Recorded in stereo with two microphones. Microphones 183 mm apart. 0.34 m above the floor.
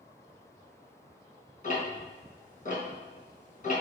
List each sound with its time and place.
1.6 s ticking: 45° left (ahead or behind), 3 m